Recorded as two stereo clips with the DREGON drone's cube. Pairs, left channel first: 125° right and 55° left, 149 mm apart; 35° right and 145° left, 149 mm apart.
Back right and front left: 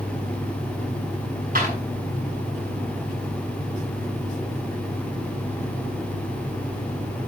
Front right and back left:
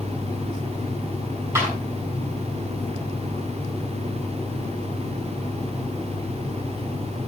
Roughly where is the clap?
Left.